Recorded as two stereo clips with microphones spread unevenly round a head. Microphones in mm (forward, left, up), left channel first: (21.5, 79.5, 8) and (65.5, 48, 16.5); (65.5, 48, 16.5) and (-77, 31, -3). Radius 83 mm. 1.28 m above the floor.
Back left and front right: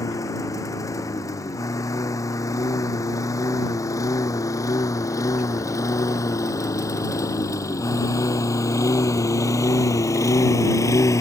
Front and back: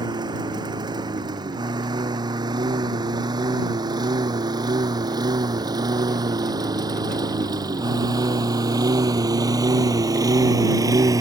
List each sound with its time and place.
0.0 s a lawn mower: 125° left; by 11.2 s 120° left